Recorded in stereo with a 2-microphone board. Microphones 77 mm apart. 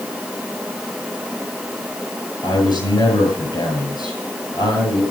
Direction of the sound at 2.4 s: 65° left (ahead or behind).